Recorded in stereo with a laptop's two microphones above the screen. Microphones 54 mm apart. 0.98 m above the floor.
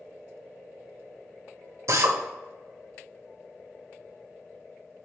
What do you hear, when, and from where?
1.9 s a drill: 70° right (ahead or behind), 1.3 m